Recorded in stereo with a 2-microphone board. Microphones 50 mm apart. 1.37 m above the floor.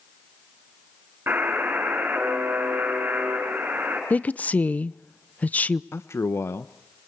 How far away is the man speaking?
About 0.7 m.